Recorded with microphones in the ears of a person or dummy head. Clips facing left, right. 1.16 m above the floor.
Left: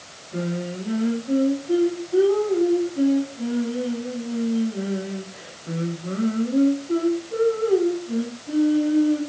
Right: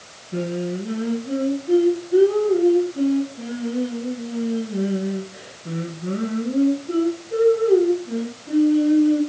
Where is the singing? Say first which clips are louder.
Right 3 dB; 30° right (ahead or behind), 3 m.